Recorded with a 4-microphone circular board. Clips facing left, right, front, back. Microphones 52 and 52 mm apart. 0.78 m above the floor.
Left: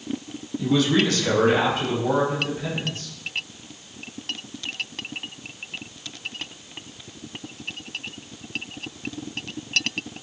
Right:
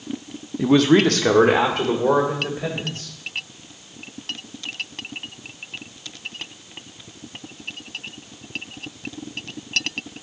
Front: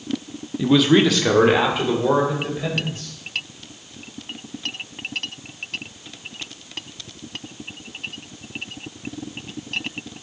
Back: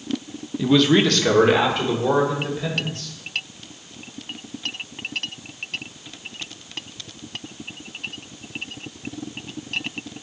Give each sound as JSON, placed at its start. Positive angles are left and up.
{"t": 0.6, "sound": "a man speaking", "azimuth_deg": -85, "distance_m": 0.9}